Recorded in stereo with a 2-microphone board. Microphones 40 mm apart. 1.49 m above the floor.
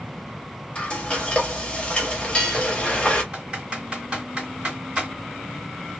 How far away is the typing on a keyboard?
About 2 m.